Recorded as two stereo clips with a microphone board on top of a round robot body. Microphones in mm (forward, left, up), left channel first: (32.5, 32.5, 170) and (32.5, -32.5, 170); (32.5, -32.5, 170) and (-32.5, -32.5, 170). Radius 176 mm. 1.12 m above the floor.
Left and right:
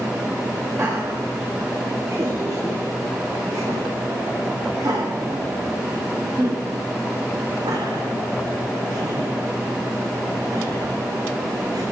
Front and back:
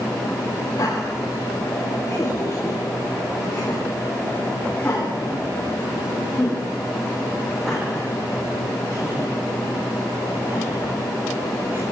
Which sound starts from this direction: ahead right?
Laughter, at 0.8 s.